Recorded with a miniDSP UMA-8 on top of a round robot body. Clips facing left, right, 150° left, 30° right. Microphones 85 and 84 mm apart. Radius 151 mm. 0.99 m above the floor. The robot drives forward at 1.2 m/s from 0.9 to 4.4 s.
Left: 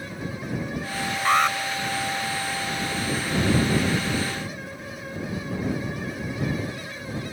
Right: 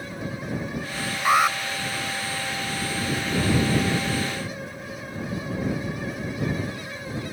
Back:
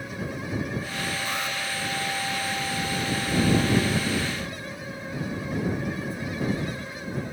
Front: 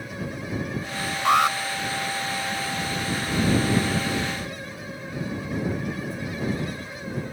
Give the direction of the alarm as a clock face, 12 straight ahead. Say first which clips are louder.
Right 1 dB, front 11 dB; 12 o'clock.